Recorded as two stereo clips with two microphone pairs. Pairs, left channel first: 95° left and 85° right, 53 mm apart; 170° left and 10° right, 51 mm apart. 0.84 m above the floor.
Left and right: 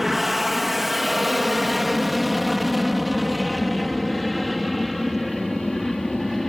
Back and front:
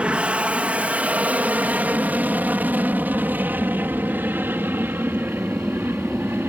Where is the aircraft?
Straight ahead; by 6.5 s 10° left.